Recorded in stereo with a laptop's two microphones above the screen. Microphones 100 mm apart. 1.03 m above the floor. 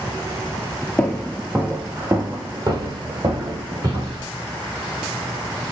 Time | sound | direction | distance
1.0 | footsteps | 15° left (ahead or behind) | 1.1 m